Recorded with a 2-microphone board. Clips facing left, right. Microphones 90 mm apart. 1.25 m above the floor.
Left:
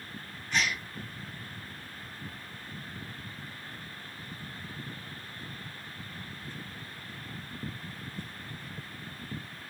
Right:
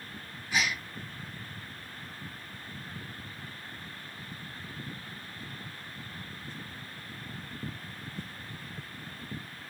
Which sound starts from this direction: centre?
A gasp, at 0.5 s.